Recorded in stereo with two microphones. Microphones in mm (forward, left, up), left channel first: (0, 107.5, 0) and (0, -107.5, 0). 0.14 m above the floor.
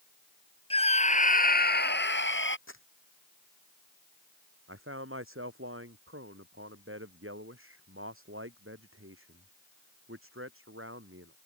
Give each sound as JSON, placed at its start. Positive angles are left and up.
{"t": 0.7, "sound": "a scream", "side_deg": 25}
{"t": 2.7, "sound": "crumpling", "side_deg": 70}
{"t": 4.7, "sound": "a man speaking", "side_deg": -75}